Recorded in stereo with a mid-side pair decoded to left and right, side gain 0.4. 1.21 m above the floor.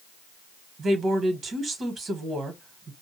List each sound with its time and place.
0.8 s a woman speaking: 55° right, 1.4 m